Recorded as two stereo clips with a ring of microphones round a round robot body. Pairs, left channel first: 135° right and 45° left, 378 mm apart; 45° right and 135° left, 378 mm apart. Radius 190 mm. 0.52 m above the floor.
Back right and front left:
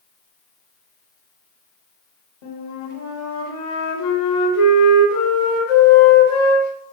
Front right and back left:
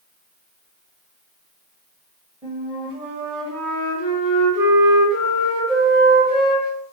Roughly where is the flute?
Behind right.